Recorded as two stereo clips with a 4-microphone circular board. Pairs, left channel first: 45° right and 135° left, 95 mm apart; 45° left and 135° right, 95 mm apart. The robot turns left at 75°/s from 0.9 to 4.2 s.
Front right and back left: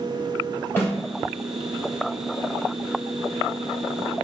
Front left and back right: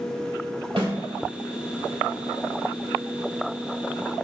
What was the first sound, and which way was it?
A snare drum, 110° right.